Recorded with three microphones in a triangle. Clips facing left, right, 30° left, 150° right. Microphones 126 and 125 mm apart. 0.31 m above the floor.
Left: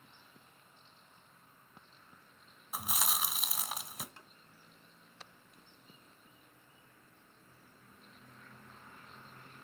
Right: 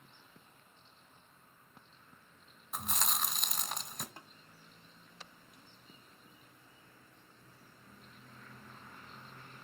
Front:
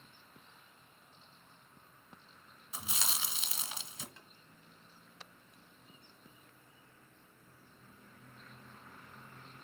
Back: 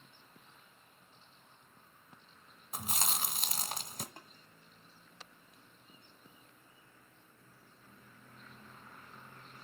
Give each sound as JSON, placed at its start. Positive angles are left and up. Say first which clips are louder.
{"t": 2.7, "sound": "chewing", "louder": "even, back 4 dB", "azimuth_deg": 175, "distance_m": 0.9}
{"t": 4.2, "sound": "tapping", "louder": "right 4 dB, back 6 dB", "azimuth_deg": -115, "distance_m": 1.7}